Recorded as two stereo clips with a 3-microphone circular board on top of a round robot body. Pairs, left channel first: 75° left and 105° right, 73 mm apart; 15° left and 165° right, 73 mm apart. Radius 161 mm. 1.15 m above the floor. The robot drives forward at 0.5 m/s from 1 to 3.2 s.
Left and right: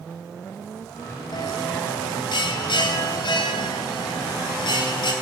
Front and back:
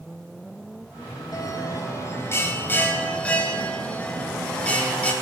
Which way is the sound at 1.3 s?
55° left.